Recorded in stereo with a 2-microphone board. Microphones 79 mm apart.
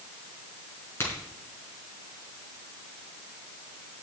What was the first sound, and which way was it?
A crack, 30° left (ahead or behind).